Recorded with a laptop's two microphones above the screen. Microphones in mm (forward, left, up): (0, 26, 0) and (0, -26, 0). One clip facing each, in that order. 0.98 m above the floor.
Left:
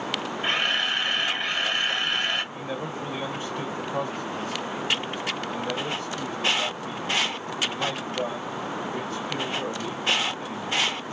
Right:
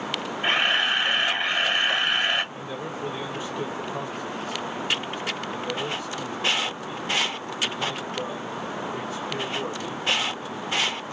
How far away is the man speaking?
About 1.3 m.